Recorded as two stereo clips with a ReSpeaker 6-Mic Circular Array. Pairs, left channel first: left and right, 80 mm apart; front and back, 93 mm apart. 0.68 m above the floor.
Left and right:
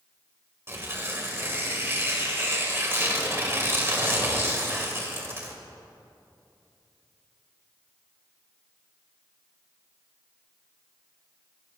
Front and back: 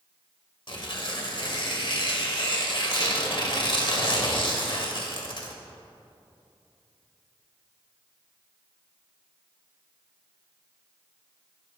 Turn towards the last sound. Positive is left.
turn(degrees=-30)